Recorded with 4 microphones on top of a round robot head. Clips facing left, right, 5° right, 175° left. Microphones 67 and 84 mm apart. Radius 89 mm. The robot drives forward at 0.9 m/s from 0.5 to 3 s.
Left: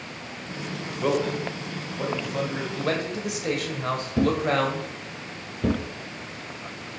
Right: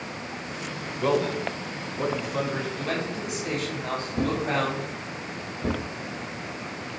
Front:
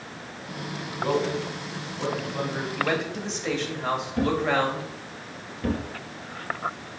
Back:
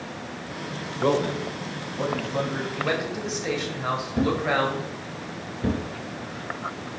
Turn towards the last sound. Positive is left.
turn(degrees=110)